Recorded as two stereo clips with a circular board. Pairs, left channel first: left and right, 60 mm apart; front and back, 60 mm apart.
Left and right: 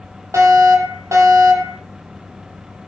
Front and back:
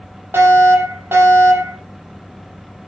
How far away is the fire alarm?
About 9.5 m.